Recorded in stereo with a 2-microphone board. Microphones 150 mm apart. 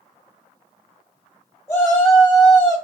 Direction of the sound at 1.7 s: 25° left (ahead or behind).